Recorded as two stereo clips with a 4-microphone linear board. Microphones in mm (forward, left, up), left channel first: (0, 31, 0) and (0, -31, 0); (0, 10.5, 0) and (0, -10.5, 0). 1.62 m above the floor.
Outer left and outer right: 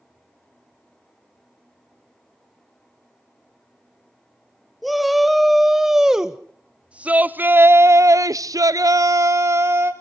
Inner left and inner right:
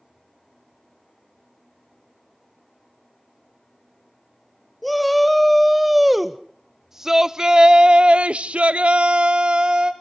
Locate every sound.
4.8 s a shout: 5° right (ahead or behind), 2 m; by 9.9 s 40° right (ahead or behind), 1.2 m